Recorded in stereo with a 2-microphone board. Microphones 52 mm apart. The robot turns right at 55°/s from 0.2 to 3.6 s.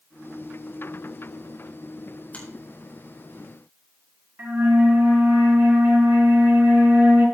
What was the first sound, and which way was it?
A finger snap, 30° left (ahead or behind).